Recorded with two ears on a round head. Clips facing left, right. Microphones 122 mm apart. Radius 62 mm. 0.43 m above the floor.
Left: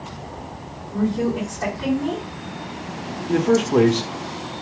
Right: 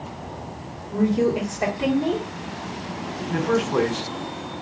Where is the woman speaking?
20° right (ahead or behind), 1.9 m.